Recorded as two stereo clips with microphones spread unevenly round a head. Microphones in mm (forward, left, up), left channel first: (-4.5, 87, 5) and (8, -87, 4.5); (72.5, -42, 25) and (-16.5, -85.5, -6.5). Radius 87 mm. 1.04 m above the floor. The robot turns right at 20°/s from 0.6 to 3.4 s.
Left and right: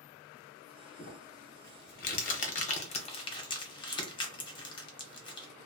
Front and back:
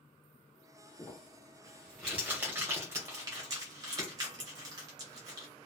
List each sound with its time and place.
1.0 s crumpling: 110° left, 0.7 m; by 5.5 s 155° left, 0.7 m